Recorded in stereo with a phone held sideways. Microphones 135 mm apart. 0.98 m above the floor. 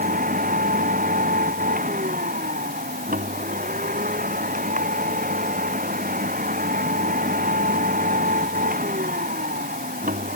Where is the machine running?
90° right.